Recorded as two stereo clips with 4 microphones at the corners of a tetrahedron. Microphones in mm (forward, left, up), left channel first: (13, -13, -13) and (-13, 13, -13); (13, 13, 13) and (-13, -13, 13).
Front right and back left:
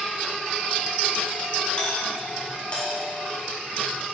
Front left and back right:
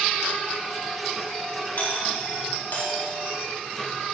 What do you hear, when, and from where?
1.8 s a doorbell: 15° left, 2.5 m